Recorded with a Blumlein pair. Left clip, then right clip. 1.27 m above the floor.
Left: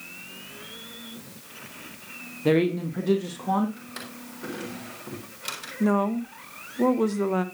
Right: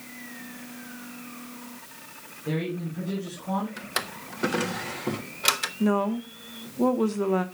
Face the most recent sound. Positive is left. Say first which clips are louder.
# left 3 dB
turn(degrees=5)